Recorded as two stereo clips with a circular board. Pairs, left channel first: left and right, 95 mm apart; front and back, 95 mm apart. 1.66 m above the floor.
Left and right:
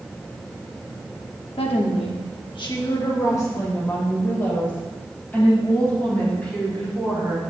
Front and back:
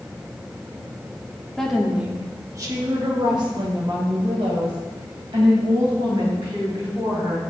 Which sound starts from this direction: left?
A woman speaking, at 1.6 s.